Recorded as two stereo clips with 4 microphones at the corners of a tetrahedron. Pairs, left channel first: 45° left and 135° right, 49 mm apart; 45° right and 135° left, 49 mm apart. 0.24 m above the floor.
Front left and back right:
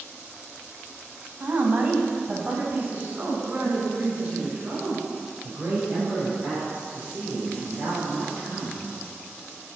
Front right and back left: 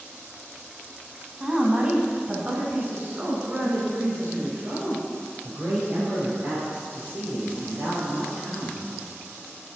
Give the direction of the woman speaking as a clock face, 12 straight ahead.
5 o'clock.